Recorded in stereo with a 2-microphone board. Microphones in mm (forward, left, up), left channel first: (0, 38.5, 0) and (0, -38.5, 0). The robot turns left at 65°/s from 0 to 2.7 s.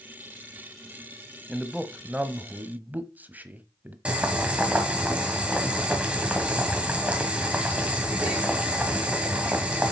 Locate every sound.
1.5 s a man speaking: centre (ahead or behind), 0.9 m; by 4.0 s 20° right (ahead or behind), 0.9 m
4.0 s boiling: 15° right (ahead or behind), 1.9 m